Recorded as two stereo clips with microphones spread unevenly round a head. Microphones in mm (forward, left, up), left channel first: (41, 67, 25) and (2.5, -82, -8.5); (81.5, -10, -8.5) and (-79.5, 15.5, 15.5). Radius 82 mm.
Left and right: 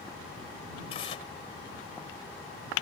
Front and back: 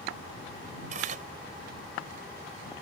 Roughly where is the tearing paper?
Behind left.